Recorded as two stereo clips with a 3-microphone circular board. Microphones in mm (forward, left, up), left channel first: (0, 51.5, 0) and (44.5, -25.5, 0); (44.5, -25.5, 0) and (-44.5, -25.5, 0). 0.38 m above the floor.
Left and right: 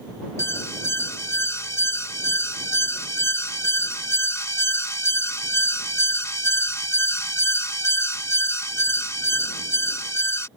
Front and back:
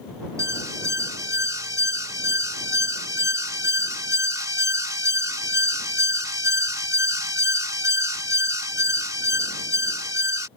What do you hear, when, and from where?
0.4 s an alarm: 155° left